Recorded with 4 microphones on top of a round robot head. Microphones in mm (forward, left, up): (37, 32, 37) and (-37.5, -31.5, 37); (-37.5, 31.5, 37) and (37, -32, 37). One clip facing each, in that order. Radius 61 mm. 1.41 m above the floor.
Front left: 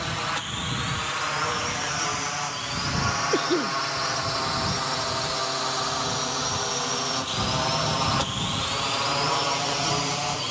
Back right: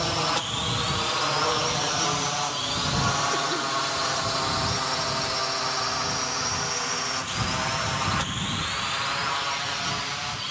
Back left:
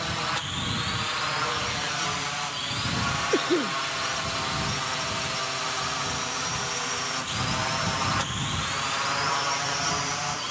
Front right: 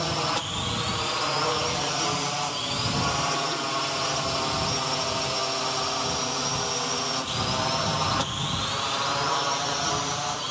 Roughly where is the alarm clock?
I don't hear an alarm clock.